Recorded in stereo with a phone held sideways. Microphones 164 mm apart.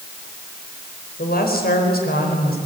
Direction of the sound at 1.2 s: 70° left (ahead or behind).